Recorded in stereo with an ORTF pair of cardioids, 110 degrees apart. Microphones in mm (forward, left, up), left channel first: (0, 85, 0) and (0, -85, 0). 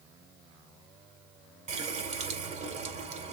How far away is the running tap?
About 3 m.